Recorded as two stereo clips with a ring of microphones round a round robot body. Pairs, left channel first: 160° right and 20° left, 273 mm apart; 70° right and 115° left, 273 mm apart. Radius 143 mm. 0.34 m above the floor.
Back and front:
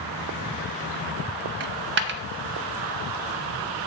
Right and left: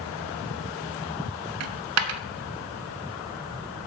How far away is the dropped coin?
About 0.6 m.